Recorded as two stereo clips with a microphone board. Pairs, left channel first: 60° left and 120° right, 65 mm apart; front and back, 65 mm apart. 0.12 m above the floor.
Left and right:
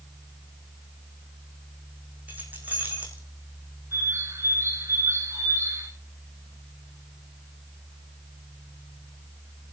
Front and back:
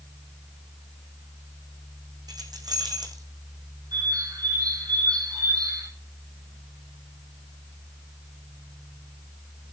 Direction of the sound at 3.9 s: 170° right.